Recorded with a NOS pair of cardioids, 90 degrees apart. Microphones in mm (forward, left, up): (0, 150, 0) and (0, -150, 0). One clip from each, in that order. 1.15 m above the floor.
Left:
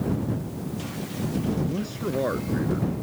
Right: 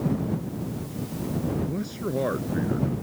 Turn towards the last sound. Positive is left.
turn(degrees=0)